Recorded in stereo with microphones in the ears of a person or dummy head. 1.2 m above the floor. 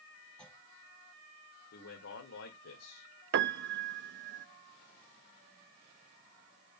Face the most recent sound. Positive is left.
turn(degrees=-65)  # may be behind; listen again after turning